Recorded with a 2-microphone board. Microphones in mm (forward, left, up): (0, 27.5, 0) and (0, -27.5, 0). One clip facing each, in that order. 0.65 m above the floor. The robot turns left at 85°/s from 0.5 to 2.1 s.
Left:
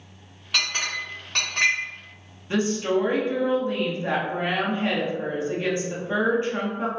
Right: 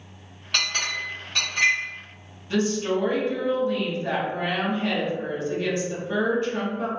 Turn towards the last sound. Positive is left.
turn(degrees=25)  # may be behind; listen again after turning